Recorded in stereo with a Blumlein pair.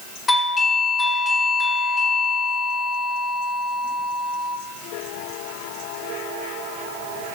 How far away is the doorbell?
About 3.5 m.